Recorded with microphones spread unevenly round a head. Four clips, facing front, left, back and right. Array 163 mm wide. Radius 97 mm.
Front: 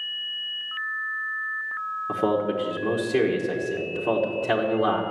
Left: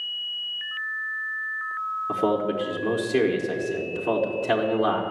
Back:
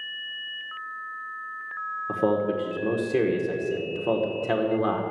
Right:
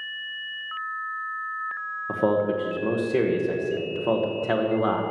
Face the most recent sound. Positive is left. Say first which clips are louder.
# right 2 dB, even
turn(degrees=165)